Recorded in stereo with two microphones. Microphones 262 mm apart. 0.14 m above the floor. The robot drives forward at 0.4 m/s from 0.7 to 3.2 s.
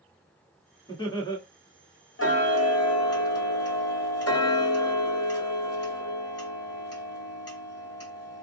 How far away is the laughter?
About 1.1 m.